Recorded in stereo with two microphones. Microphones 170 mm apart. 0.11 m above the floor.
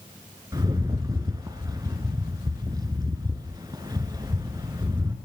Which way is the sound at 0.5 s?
25° right (ahead or behind).